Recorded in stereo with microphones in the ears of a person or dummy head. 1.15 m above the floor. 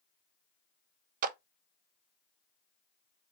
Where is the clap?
50° right (ahead or behind), 0.6 m.